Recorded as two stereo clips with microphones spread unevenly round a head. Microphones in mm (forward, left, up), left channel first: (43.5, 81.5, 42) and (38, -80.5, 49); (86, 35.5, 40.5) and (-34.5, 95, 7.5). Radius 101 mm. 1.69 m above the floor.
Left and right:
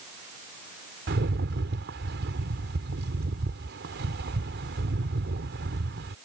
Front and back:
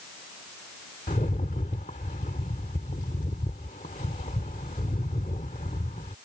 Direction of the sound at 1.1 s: 80° right.